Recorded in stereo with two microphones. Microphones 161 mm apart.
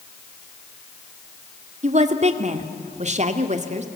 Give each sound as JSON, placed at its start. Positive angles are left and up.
{"t": 1.8, "sound": "a woman speaking", "side_deg": -45, "distance_m": 1.8}